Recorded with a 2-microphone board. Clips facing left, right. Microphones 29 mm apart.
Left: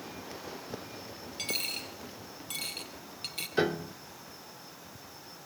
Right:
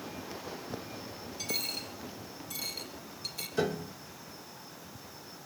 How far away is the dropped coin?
About 3 m.